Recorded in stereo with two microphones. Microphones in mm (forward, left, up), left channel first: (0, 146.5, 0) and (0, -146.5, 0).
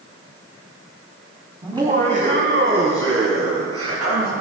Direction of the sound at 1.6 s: 15° right (ahead or behind).